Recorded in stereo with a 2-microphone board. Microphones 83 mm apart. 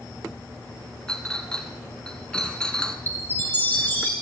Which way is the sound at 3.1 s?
25° left (ahead or behind).